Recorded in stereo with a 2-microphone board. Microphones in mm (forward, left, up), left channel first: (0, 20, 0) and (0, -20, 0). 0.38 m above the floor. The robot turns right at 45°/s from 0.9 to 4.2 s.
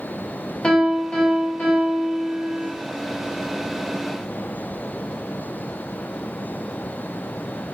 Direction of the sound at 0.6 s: 15° left.